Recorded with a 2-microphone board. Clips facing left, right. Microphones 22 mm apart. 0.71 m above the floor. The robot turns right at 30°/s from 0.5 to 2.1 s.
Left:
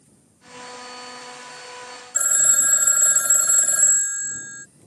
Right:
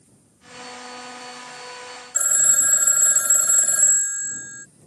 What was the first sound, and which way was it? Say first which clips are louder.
A phone ringing: even; 5° left (ahead or behind).